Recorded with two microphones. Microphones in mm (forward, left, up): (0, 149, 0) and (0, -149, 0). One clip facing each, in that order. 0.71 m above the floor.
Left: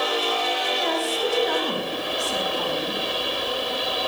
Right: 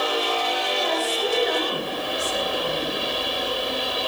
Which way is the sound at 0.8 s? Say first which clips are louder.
Even; 80° left.